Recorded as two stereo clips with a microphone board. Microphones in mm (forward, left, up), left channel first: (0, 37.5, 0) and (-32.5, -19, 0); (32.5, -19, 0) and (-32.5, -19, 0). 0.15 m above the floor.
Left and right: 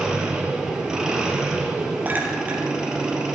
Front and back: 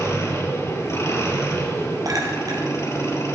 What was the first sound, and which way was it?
An engine running, 40° right.